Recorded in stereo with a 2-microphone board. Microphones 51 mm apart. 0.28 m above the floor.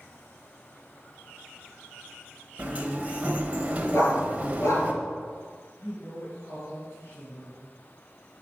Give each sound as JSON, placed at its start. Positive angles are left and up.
{"t": 2.6, "sound": "a sliding door", "side_deg": -30, "distance_m": 0.9}
{"t": 3.9, "sound": "a dog barking", "side_deg": 60, "distance_m": 1.8}
{"t": 5.8, "sound": "a woman speaking", "side_deg": 55, "distance_m": 3.5}